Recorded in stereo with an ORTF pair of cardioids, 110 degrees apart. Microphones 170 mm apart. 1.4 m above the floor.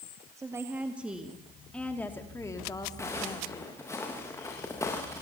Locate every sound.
0.4 s a woman speaking: 20° right, 2.5 m; by 3.8 s 35° left, 3.5 m
3.0 s footsteps: 15° left, 7.5 m